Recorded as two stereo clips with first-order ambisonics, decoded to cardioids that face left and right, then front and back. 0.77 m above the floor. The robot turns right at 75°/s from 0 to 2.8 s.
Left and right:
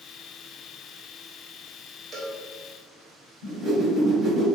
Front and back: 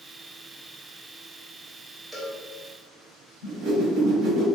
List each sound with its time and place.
2.1 s a cowbell: 110° right, 0.6 m; by 2.4 s 90° right, 0.6 m
3.4 s a whoosh: 155° right, 1.5 m